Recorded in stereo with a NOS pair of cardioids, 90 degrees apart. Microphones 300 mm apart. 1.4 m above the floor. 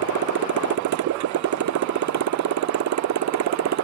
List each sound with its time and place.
0.0 s a motorcycle: 65° right; by 3.9 s 60° right